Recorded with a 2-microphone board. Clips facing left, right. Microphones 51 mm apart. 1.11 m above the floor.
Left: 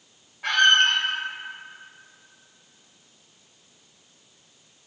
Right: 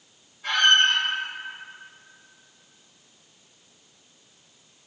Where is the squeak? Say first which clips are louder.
Left 1 dB; 65° left (ahead or behind), 0.8 m.